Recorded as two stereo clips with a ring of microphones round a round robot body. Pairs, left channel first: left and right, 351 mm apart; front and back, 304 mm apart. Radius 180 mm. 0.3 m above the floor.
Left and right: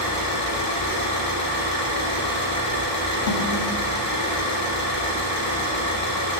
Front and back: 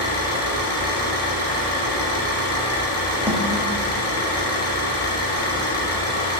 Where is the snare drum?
95° left, 1.4 m.